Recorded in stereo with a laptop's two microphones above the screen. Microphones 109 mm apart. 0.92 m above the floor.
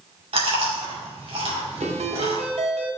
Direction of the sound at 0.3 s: 65° right (ahead or behind).